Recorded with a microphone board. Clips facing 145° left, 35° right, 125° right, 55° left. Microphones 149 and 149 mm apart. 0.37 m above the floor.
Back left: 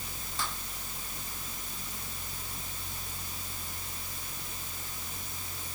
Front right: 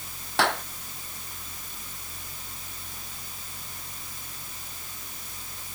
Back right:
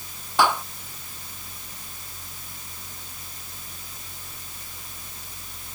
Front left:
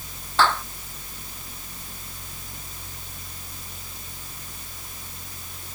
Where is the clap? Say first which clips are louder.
Front right 14 dB, even; 45° right.